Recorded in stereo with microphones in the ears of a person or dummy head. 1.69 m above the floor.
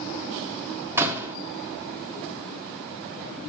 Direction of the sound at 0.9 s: 15° right (ahead or behind).